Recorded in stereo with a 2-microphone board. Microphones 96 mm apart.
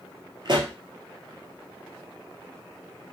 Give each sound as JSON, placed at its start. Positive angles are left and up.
{"t": 0.5, "sound": "a pop", "side_deg": -55, "distance_m": 0.7}